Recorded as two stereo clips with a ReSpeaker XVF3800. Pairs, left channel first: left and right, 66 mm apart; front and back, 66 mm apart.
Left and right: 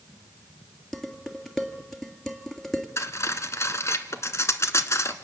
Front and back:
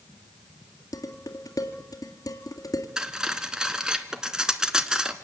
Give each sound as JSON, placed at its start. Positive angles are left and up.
{"t": 0.9, "sound": "dishes clattering", "azimuth_deg": 5, "distance_m": 1.8}
{"t": 3.0, "sound": "cutlery clinking", "azimuth_deg": 105, "distance_m": 1.1}